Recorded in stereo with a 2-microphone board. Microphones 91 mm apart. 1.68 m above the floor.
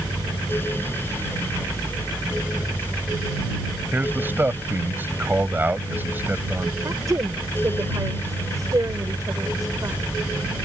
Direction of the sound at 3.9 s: 20° right (ahead or behind).